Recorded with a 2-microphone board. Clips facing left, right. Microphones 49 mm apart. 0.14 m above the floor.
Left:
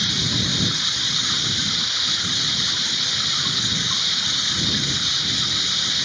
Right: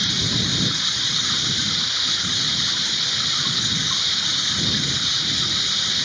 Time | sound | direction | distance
0.0 | running water | centre (ahead or behind) | ?